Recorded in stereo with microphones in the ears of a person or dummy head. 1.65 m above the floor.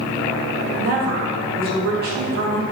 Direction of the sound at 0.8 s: 50° right (ahead or behind).